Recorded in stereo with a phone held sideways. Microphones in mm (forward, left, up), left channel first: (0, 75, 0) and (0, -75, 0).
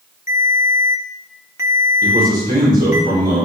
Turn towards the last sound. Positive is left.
turn(degrees=-75)  # may be behind; listen again after turning